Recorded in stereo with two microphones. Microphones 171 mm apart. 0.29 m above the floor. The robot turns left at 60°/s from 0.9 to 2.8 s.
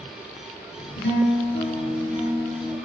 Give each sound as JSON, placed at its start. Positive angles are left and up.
{"t": 1.0, "sound": "a guitar", "azimuth_deg": 85, "distance_m": 4.0}